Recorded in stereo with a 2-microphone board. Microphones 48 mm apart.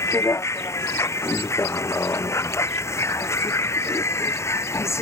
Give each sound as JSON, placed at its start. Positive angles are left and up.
{"t": 0.0, "sound": "a vehicle", "side_deg": 85}